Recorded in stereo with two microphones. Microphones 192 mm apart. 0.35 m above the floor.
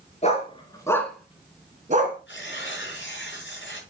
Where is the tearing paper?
75° left (ahead or behind), 6 m.